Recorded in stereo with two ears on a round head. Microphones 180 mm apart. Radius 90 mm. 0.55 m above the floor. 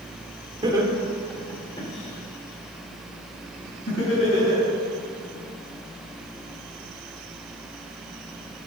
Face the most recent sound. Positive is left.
turn(degrees=65)  # may be behind; listen again after turning